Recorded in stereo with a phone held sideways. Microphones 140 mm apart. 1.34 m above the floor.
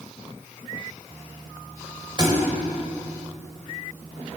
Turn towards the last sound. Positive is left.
turn(degrees=-30)  # may be behind; listen again after turning